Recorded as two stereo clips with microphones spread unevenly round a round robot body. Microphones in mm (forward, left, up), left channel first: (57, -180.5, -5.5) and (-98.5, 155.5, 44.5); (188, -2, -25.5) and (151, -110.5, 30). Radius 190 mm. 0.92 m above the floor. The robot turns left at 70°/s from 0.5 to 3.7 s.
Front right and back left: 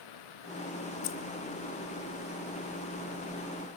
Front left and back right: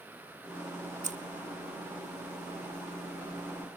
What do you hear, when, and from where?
1.0 s keys jangling: 75° right, 0.8 m; by 1.2 s 85° right, 0.8 m